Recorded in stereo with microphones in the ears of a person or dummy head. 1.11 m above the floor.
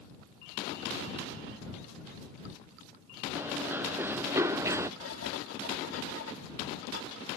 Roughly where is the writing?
Left.